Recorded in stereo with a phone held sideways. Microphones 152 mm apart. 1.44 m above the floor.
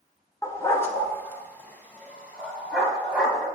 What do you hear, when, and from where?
0.4 s a dog barking: 20° left (ahead or behind), 1.3 m; by 3.5 s 5° left (ahead or behind), 3.5 m